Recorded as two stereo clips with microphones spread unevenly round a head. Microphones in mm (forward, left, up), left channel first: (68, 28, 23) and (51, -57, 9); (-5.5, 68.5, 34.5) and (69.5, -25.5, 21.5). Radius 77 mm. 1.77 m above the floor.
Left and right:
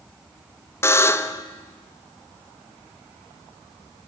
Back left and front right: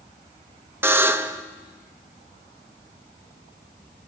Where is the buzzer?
25° left, 0.7 m.